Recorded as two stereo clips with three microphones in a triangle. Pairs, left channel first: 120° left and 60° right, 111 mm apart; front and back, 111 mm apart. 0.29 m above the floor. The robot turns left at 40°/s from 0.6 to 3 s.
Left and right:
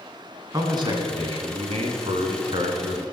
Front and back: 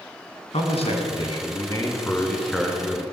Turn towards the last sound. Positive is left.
turn(degrees=-105)